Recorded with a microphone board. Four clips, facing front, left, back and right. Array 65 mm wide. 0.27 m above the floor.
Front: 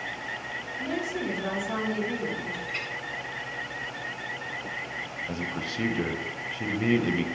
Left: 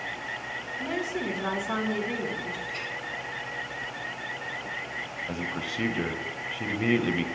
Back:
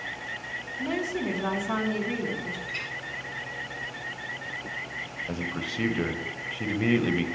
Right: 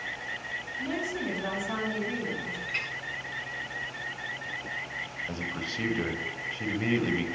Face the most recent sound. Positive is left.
turn(degrees=130)